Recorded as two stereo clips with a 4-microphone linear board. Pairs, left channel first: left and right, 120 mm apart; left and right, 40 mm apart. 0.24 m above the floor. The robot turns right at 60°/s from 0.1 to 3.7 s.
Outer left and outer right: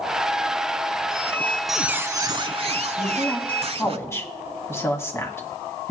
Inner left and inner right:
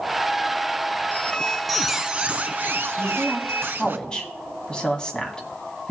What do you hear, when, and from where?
1.1 s a squeak: 145° left, 0.7 m; by 4.0 s 60° right, 0.7 m
3.0 s a woman speaking: 10° right (ahead or behind), 2.0 m; by 5.9 s 25° left (ahead or behind), 2.0 m